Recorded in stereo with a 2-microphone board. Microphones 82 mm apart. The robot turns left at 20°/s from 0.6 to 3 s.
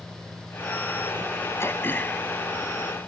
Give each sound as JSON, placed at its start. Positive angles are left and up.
{"t": 0.0, "sound": "an engine running", "azimuth_deg": 180}
{"t": 1.6, "sound": "throat clearing", "side_deg": 30}